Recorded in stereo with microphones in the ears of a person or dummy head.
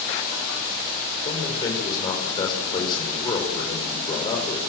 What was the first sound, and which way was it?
A man speaking, 25° left (ahead or behind).